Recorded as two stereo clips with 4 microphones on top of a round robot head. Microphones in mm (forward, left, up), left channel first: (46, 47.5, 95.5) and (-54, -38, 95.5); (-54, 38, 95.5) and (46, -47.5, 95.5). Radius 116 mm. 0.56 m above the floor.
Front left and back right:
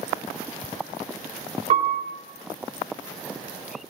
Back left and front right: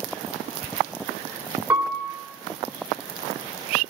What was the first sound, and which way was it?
A piano, 120° right.